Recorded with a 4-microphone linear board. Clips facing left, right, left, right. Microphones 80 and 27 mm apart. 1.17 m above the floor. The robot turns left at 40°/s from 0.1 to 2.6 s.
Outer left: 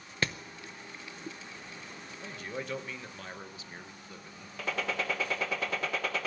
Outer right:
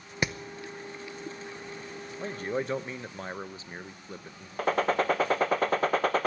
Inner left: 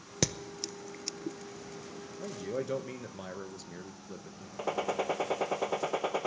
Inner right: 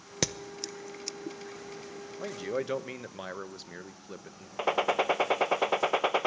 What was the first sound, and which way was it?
Hammering, 15° right (ahead or behind).